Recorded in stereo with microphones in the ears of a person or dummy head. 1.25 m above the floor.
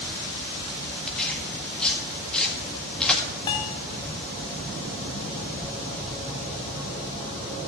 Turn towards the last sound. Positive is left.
turn(degrees=20)  # may be behind; listen again after turning